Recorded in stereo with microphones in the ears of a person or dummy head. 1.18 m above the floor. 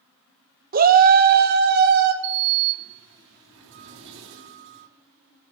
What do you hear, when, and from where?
0.7 s a shout: 45° right (ahead or behind), 0.8 m; by 2.1 s 55° right (ahead or behind), 2.0 m
2.2 s a sliding door: 65° right (ahead or behind), 2.5 m